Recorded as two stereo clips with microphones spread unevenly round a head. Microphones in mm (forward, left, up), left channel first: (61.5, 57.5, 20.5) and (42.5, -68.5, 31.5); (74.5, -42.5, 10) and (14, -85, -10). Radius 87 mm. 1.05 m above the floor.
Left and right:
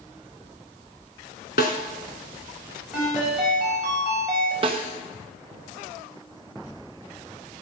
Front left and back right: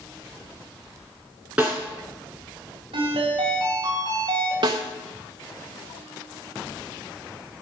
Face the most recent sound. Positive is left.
turn(degrees=-160)